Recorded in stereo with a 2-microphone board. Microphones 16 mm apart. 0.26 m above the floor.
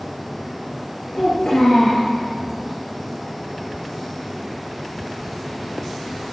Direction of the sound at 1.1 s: 80° left.